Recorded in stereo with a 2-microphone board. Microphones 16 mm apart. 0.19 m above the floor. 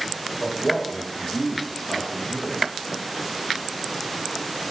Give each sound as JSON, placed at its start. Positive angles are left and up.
{"t": 0.4, "sound": "a man speaking", "side_deg": 25, "distance_m": 3.5}